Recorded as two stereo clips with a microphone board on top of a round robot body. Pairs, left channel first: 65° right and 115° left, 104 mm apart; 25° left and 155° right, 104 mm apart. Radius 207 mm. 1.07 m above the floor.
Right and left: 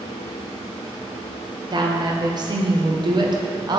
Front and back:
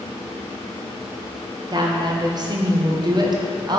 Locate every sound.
1.7 s a woman speaking: 155° left, 1.4 m